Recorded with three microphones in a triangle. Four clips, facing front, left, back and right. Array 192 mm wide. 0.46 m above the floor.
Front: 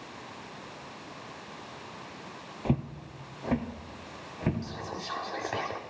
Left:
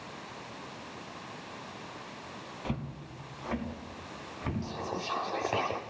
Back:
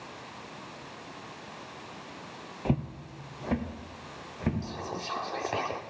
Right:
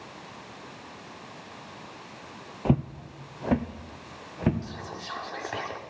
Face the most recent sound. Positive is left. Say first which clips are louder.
# left 3 dB, back 1 dB
turn(degrees=120)